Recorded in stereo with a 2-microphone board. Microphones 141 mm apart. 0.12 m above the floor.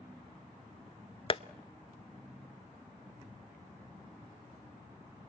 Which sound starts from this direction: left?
Tapping, at 1.3 s.